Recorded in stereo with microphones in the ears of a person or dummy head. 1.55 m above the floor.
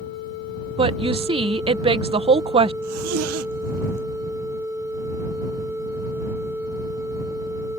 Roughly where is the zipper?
Right.